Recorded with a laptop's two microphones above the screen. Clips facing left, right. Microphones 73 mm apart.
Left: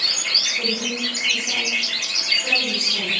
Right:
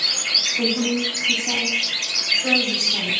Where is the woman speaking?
10° right (ahead or behind), 4 m.